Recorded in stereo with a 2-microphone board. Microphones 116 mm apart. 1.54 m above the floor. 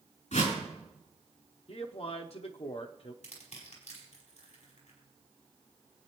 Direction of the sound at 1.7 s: 55° left (ahead or behind).